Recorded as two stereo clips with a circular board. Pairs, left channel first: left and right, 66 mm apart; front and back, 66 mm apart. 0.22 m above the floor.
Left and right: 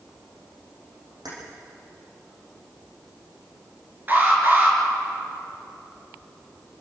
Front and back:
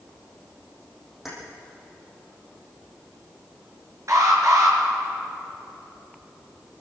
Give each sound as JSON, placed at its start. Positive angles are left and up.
{"t": 1.2, "sound": "keys jangling", "azimuth_deg": -90, "distance_m": 7.5}
{"t": 4.1, "sound": "an alarm", "azimuth_deg": -150, "distance_m": 5.0}